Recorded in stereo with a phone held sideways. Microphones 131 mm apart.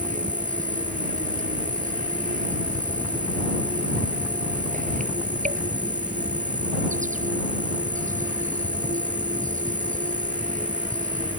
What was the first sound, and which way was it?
An insect, 80° right.